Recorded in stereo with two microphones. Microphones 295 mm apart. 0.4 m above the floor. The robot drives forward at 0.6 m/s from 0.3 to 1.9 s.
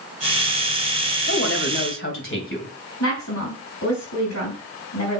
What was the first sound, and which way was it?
A woman speaking, 50° left (ahead or behind).